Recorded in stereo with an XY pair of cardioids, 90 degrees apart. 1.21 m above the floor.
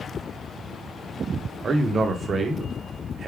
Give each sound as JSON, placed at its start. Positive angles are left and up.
{"t": 1.6, "sound": "a man speaking", "azimuth_deg": -50, "distance_m": 0.9}